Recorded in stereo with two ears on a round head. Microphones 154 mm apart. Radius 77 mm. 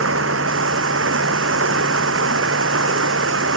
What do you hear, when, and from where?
0.0 s running water: 90° right